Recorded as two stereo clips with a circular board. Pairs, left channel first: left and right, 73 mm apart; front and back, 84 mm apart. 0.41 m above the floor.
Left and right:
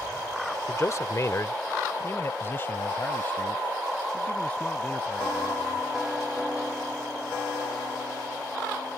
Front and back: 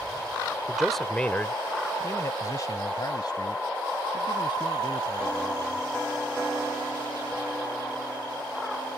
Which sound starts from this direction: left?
A man speaking, at 0.7 s.